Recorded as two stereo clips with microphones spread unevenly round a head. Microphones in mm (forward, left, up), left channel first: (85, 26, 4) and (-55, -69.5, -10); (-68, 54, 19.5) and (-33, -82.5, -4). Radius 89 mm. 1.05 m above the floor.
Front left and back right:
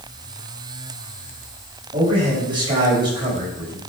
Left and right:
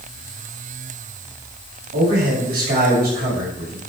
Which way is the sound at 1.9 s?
80° right.